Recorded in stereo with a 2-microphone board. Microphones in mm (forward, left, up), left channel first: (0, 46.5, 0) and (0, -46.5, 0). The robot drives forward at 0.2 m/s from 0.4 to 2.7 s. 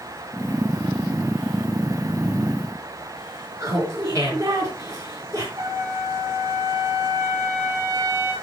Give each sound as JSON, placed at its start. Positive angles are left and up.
{"t": 3.6, "sound": "laughter", "side_deg": -30, "distance_m": 4.5}
{"t": 5.6, "sound": "a trumpet", "side_deg": -45, "distance_m": 4.5}